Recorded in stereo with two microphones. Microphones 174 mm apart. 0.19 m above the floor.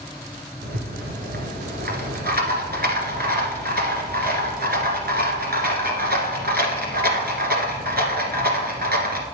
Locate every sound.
0.6 s a rattle: 65° right (ahead or behind), 1.4 m